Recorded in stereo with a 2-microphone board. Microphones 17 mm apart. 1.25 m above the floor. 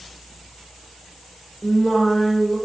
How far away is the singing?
About 1.0 m.